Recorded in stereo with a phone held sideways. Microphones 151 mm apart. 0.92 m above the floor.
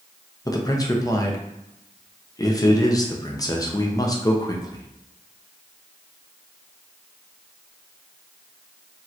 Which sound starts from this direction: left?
A man speaking, at 0.5 s.